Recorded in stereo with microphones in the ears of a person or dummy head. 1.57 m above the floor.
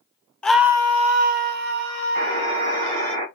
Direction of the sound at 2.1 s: 45° right (ahead or behind).